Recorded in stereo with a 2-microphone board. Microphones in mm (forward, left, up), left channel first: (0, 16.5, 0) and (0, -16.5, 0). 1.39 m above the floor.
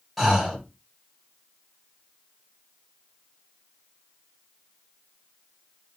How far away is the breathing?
About 1.2 m.